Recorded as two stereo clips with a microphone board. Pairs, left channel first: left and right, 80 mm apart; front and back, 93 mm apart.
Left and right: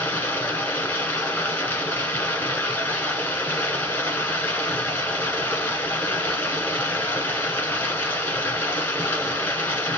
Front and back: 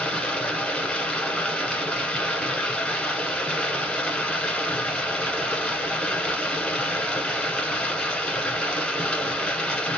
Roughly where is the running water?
Ahead left.